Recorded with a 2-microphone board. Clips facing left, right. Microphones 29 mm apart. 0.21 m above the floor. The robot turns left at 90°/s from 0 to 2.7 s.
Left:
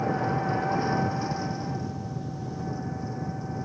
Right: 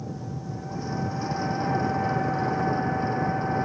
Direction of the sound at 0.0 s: 110° left.